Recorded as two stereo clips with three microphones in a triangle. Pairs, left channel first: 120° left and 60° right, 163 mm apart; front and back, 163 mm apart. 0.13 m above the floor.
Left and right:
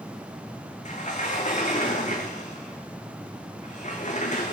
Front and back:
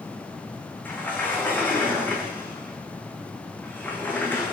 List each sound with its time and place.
0.8 s a sliding door: 80° left, 3 m